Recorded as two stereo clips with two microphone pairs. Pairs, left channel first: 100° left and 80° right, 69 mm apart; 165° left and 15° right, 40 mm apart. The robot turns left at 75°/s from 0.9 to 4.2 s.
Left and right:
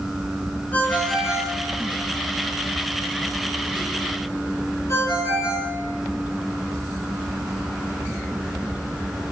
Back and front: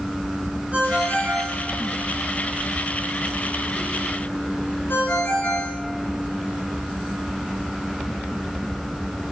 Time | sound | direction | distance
0.7 | a ringtone | 35° left | 4 m